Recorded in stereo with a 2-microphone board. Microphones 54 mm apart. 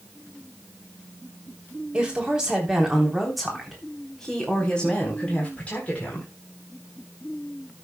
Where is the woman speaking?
20° right (ahead or behind), 3.5 m; by 6.3 s 30° left (ahead or behind), 4.5 m.